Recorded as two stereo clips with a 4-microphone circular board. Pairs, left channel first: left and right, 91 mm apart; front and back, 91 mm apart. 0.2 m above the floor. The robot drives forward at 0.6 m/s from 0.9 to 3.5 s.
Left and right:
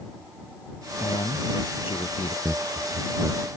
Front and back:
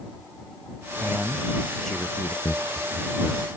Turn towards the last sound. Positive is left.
turn(degrees=-25)